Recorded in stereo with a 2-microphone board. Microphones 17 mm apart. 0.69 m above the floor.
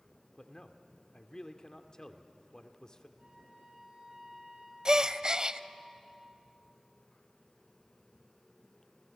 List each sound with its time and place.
0.4 s a man speaking: 45° left (ahead or behind), 1.5 m
3.2 s a flute: 55° right (ahead or behind), 9 m
4.8 s a gasp: 45° right (ahead or behind), 0.6 m